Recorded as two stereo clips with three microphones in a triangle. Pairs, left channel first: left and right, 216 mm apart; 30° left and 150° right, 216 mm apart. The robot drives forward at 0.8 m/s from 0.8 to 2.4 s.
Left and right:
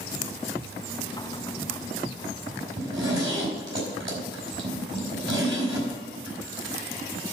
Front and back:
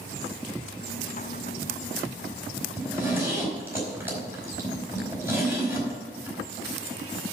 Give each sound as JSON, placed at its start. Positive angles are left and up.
{"t": 2.8, "sound": "a zipper", "azimuth_deg": -70, "distance_m": 4.5}